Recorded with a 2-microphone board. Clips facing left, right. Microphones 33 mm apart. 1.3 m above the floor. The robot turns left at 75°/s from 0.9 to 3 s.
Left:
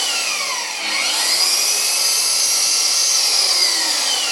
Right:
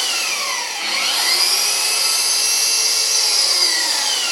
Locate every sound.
0.0 s an engine running: 10° right, 0.8 m; by 4.3 s 170° right, 0.8 m